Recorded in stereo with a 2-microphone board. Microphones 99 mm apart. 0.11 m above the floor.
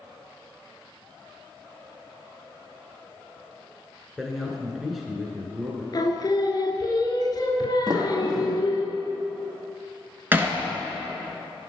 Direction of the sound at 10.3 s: 20° right (ahead or behind).